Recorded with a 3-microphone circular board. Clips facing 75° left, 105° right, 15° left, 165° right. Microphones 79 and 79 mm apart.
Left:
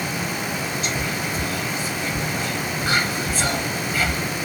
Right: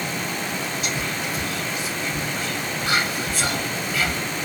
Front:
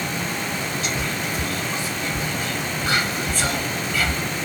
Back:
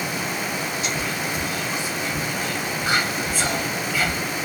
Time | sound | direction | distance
0.8 | whispering | 115° left | 1.9 m